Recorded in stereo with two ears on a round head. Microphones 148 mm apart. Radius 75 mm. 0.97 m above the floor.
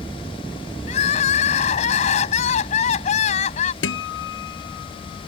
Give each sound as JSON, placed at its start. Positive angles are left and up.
{"t": 0.9, "sound": "crying", "side_deg": 45}
{"t": 3.8, "sound": "a guitar", "side_deg": 75}